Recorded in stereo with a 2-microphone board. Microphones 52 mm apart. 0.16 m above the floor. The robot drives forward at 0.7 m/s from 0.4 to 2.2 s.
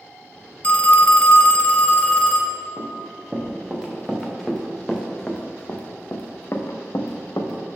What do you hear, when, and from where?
0.6 s a phone ringing: 25° left (ahead or behind), 0.8 m; by 2.6 s 20° left (ahead or behind), 1.1 m
2.8 s running footsteps: 15° right (ahead or behind), 2.5 m; by 7.8 s 75° left (ahead or behind), 1.4 m